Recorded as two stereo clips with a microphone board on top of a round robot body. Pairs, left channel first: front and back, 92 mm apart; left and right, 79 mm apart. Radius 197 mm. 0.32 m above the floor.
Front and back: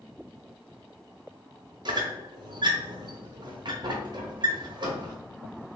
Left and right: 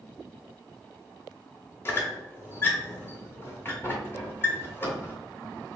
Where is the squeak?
150° left, 1.4 m.